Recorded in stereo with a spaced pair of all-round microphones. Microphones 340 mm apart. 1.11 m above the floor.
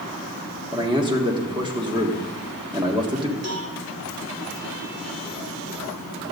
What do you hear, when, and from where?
0.7 s a man speaking: 15° right (ahead or behind), 1.6 m
3.4 s a cowbell: 50° right (ahead or behind), 1.5 m